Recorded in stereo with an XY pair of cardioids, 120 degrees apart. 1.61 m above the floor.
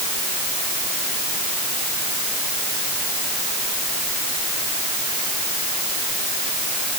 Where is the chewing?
I don't hear chewing.